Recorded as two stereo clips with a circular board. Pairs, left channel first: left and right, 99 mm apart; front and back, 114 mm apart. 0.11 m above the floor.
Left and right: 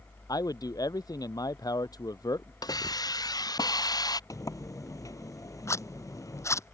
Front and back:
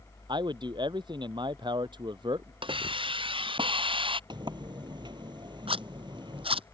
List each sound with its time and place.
0.3 s a man speaking: 135° left
2.6 s a hiss: 140° left
4.3 s a sliding door: 140° left
5.7 s a zipper: 150° left